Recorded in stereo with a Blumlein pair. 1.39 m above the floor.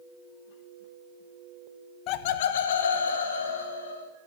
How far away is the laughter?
About 0.7 m.